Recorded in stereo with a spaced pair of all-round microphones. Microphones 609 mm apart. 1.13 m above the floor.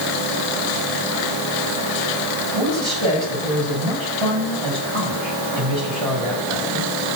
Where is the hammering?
I don't hear hammering.